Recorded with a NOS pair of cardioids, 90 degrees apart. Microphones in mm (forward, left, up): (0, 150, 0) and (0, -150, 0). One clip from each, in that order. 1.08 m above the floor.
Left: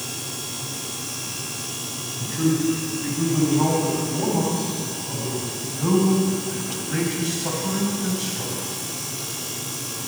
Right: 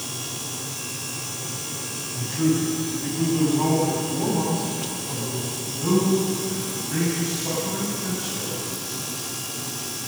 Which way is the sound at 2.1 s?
5° left.